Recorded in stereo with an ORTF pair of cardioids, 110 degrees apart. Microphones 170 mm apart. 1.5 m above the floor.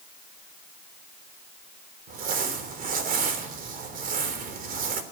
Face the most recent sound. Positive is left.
turn(degrees=-55)